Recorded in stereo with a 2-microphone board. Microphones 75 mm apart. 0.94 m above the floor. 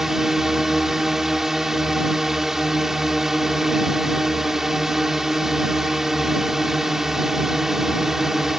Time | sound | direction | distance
0.0 | a drone | 5° right (ahead or behind) | ?